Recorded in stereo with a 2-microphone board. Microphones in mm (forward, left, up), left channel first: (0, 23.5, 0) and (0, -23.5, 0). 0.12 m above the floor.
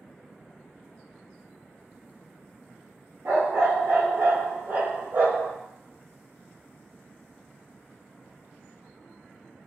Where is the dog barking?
60° right (ahead or behind), 0.9 m.